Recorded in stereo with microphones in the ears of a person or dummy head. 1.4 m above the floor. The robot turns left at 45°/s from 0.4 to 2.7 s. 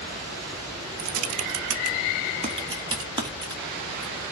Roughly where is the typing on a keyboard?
Right.